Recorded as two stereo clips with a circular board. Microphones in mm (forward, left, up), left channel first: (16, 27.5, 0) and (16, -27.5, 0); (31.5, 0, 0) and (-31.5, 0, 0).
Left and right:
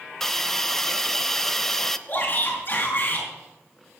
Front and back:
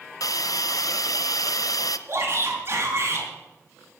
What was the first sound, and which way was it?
A hiss, 5° left.